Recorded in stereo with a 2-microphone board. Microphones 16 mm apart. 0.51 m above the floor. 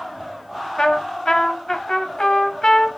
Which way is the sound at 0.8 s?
55° left (ahead or behind).